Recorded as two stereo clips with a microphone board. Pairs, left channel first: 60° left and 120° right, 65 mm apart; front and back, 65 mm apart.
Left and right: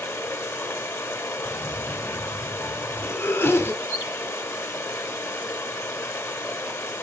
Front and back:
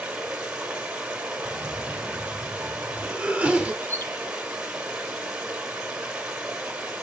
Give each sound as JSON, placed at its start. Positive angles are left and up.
{"t": 0.0, "sound": "running water", "azimuth_deg": 105, "distance_m": 1.5}
{"t": 1.4, "sound": "a cough", "azimuth_deg": 105, "distance_m": 1.9}
{"t": 3.8, "sound": "a bird", "azimuth_deg": 50, "distance_m": 4.5}